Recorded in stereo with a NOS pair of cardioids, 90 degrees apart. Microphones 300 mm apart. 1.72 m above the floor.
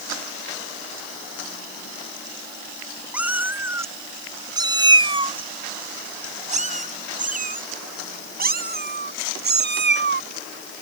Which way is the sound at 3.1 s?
5° right.